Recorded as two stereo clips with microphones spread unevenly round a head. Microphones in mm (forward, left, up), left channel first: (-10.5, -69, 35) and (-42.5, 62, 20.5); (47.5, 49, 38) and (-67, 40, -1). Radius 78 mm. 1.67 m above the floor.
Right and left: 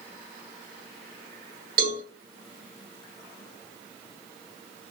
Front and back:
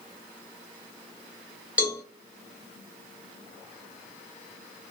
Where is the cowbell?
95° left, 1.1 m.